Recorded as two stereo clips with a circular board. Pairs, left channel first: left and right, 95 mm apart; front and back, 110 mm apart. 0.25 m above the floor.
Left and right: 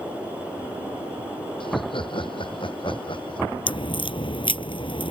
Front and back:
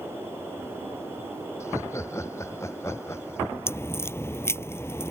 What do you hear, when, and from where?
1.6 s laughter: 65° left
3.7 s a crack: 65° left